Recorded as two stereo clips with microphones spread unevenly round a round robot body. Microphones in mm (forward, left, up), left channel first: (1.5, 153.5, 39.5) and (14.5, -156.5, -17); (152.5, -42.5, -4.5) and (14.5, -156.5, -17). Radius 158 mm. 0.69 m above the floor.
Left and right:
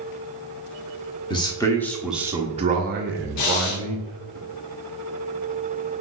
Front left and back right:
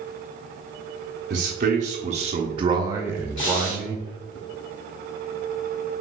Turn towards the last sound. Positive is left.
turn(degrees=65)